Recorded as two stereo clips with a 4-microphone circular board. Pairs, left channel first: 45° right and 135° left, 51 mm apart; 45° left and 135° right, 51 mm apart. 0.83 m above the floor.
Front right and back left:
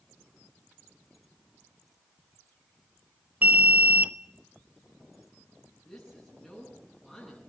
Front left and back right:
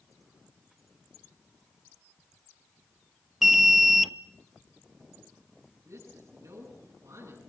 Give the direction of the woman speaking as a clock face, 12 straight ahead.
4 o'clock.